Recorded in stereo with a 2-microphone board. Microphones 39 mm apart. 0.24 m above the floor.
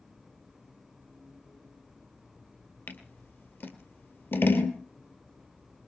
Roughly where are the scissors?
Left.